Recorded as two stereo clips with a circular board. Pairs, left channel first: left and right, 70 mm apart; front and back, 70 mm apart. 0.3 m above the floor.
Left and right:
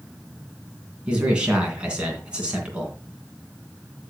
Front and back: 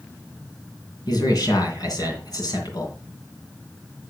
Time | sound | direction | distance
1.1 | a man speaking | 15° right | 2.5 m